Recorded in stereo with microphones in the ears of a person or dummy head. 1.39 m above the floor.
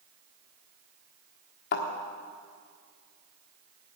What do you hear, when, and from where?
1.7 s a thud: 50° left (ahead or behind), 1.2 m